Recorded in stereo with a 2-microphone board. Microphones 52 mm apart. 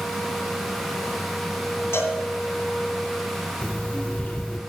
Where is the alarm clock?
25° left (ahead or behind), 1.6 m.